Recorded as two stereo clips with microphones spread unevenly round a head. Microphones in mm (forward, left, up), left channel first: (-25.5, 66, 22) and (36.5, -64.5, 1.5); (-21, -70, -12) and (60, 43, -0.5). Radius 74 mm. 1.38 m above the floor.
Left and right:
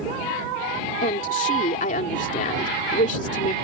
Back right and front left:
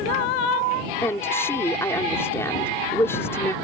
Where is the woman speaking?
160° left.